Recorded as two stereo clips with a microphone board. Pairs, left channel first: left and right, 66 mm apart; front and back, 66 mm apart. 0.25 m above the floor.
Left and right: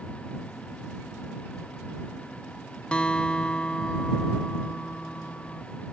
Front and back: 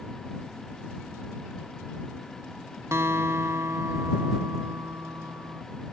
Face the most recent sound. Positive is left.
turn(degrees=155)